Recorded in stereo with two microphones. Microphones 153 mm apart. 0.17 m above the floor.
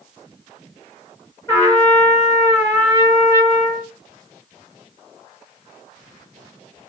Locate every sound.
1.5 s a trumpet: 15° left (ahead or behind), 2 m